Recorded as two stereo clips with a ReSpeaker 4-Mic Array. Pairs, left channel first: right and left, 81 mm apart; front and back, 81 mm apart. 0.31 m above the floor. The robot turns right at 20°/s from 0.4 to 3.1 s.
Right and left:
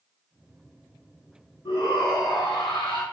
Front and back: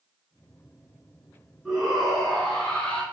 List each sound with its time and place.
1.6 s a shout: 100° right, 3 m; by 3.0 s 75° right, 3 m